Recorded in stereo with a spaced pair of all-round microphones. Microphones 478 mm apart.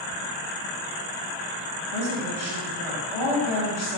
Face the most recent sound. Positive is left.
turn(degrees=60)  # may be behind; listen again after turning